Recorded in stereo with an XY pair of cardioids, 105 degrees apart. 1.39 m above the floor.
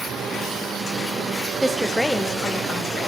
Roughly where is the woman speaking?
Ahead.